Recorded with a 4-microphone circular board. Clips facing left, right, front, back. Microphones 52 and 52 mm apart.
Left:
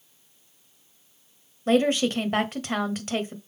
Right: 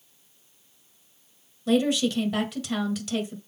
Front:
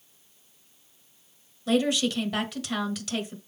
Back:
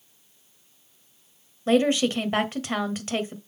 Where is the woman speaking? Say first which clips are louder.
Left 1 dB, back 4 dB; 130° left, 1.6 m.